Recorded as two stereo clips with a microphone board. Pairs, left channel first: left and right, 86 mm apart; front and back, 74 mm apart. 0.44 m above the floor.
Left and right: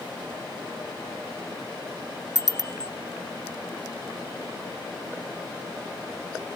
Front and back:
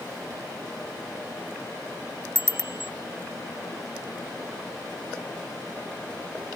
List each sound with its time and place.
2.4 s a bicycle bell: 125° right